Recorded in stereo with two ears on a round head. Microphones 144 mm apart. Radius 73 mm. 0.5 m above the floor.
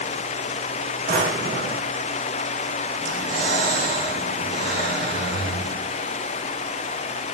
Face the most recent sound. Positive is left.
turn(degrees=-55)  # may be behind; listen again after turning